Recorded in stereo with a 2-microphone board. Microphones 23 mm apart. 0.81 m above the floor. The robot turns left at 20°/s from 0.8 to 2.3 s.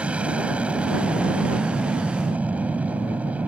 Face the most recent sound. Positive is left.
turn(degrees=-75)  # may be behind; listen again after turning